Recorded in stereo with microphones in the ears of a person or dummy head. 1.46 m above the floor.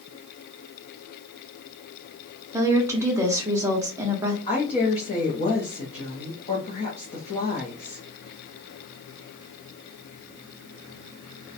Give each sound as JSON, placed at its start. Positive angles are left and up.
{"t": 2.5, "sound": "a woman speaking", "side_deg": -15, "distance_m": 0.6}
{"t": 4.5, "sound": "a woman speaking", "side_deg": 30, "distance_m": 0.6}